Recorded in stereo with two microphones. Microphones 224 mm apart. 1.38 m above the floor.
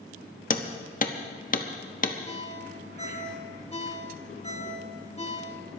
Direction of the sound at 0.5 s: 35° left (ahead or behind).